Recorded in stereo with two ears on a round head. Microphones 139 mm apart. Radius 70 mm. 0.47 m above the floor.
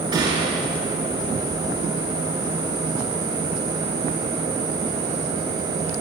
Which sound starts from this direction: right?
A gunshot, at 0.1 s.